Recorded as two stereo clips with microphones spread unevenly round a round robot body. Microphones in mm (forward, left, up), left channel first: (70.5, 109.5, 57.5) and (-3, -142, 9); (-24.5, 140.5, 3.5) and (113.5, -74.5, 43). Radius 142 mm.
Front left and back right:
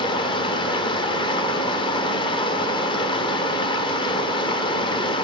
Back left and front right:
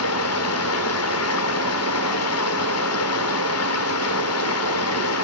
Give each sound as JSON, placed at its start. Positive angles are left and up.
{"t": 0.0, "sound": "running water", "azimuth_deg": 150, "distance_m": 1.0}